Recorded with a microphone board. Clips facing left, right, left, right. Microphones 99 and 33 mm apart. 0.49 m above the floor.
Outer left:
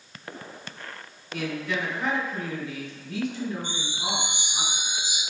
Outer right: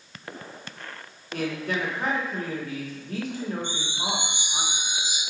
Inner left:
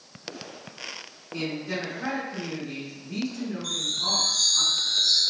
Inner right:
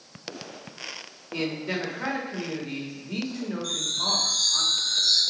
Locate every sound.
1.3 s a man speaking: 45° right (ahead or behind), 1.2 m
3.6 s a chime: 10° left (ahead or behind), 1.6 m